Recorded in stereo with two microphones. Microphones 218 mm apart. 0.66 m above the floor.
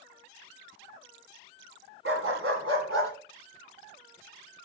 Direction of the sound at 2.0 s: 75° right (ahead or behind).